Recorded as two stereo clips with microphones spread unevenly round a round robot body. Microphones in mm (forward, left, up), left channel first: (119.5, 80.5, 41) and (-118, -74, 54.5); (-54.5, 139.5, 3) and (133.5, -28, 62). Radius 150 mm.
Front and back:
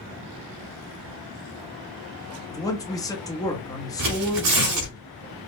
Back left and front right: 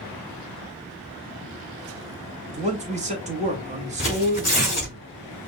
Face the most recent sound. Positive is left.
turn(degrees=-145)